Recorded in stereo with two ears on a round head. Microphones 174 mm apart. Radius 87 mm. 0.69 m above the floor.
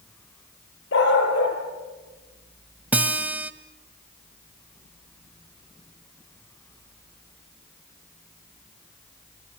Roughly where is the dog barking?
Left.